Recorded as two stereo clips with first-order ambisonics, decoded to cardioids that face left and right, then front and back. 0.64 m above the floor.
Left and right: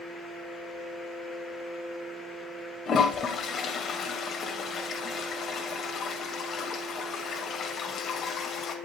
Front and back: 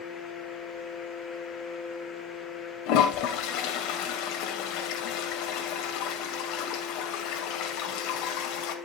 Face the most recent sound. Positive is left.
turn(degrees=30)